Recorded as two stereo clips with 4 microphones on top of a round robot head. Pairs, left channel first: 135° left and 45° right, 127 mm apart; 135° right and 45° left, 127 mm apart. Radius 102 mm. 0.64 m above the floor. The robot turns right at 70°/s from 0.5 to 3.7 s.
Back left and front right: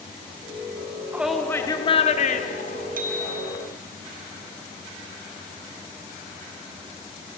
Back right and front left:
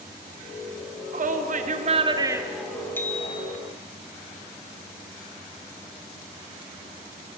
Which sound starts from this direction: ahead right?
A bicycle bell, at 3.0 s.